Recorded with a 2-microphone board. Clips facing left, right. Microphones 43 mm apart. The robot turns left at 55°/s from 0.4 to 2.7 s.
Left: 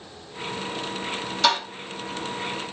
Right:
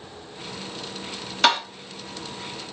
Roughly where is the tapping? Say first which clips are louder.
Right 2 dB; right.